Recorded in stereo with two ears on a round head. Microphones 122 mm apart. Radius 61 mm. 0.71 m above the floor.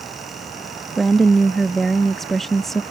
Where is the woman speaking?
Centre (ahead or behind).